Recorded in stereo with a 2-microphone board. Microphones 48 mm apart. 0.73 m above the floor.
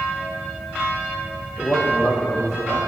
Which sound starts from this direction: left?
A man speaking, at 1.6 s.